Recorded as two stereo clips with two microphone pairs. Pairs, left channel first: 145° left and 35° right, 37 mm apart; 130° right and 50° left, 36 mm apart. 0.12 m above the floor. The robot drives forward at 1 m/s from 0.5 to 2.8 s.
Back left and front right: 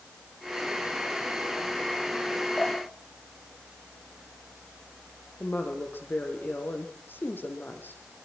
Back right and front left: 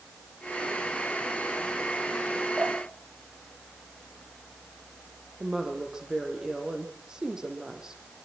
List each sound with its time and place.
2.6 s dripping: 85° left, 4 m; by 4.4 s 90° left, 4 m
5.4 s a woman speaking: 125° left, 5 m